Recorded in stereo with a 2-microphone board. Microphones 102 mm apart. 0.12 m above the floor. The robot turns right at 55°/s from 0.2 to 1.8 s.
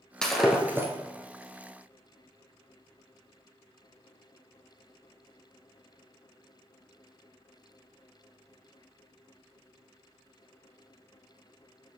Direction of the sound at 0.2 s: 170° left.